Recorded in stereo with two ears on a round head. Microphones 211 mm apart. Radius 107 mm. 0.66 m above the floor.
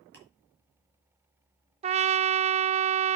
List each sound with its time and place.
0.1 s ticking: 5° left (ahead or behind), 4.5 m
1.8 s a trumpet: 25° right (ahead or behind), 0.5 m